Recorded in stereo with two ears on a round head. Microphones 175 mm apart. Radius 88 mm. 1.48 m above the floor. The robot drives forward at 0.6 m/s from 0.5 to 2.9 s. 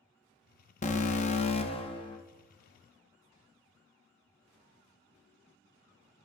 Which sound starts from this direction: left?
An alarm, at 0.8 s.